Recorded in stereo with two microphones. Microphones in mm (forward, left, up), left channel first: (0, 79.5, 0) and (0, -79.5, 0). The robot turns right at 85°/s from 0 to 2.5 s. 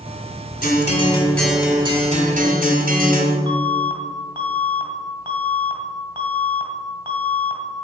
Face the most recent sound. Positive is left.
turn(degrees=-30)  # may be behind; listen again after turning